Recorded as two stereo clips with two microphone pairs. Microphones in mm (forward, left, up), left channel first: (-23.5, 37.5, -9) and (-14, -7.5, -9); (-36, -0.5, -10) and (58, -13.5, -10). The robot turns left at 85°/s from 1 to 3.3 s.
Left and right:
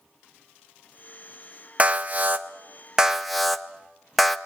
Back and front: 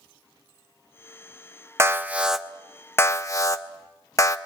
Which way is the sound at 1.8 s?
40° right.